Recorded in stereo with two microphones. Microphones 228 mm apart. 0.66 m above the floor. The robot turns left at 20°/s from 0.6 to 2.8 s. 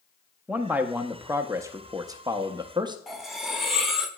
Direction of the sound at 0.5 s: 5° right (ahead or behind).